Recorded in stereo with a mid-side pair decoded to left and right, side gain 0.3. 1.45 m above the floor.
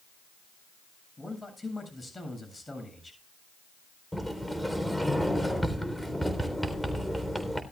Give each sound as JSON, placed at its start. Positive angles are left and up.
{"t": 1.2, "sound": "a man speaking", "azimuth_deg": 25, "distance_m": 7.5}
{"t": 4.1, "sound": "a sliding door", "azimuth_deg": 0, "distance_m": 3.5}